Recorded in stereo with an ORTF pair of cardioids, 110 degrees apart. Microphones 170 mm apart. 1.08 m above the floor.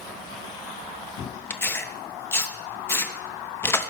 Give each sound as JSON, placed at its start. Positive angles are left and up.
{"t": 1.5, "sound": "tearing paper", "azimuth_deg": 15, "distance_m": 0.8}